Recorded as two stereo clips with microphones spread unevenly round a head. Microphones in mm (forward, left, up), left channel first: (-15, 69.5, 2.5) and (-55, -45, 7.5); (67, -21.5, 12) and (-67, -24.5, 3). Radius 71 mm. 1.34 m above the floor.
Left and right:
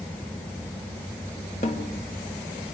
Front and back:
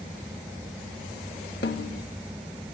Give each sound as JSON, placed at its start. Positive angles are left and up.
{"t": 1.6, "sound": "a snare drum", "azimuth_deg": 20, "distance_m": 1.6}